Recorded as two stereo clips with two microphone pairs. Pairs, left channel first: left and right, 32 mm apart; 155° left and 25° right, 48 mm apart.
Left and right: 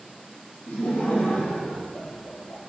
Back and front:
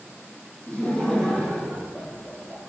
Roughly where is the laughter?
Left.